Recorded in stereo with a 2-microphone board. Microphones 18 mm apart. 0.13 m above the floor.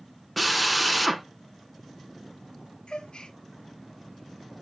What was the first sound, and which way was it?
A drill, centre (ahead or behind).